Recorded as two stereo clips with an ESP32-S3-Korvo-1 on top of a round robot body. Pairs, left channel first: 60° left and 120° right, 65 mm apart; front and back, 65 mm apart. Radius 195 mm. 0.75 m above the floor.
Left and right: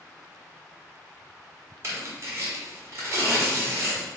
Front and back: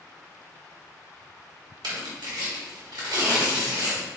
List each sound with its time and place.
1.8 s tearing paper: 170° right, 1.2 m